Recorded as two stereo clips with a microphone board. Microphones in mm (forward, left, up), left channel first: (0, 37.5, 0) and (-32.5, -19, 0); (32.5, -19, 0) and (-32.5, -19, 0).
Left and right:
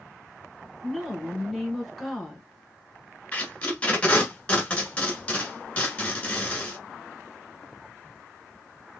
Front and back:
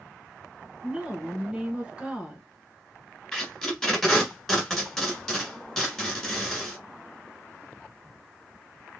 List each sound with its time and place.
0.8 s a woman speaking: 150° left, 1.1 m
3.3 s tape being pulled: 70° left, 1.4 m